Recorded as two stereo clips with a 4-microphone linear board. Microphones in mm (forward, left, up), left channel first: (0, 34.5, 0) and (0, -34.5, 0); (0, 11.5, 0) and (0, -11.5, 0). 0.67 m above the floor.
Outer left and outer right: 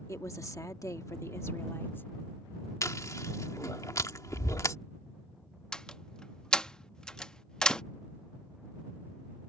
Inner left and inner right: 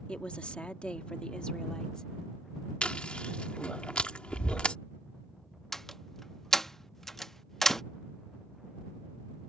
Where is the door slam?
10° left (ahead or behind).